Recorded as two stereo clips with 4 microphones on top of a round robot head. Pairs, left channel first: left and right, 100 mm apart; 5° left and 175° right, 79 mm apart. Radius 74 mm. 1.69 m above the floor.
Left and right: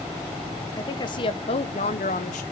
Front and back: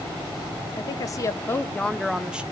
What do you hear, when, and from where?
0.8 s a woman speaking: 40° left, 1.1 m; by 2.4 s 110° left, 0.9 m